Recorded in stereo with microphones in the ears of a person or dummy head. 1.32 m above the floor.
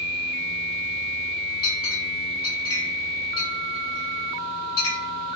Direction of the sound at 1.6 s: 25° left (ahead or behind).